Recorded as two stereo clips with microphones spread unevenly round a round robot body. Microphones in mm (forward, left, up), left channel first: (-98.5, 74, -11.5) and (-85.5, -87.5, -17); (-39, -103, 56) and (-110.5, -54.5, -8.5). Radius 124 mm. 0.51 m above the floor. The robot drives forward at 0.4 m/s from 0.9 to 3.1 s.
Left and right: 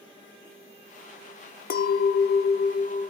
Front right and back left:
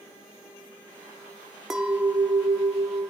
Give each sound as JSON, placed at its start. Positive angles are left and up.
{"t": 1.7, "sound": "a clink", "azimuth_deg": 95, "distance_m": 0.5}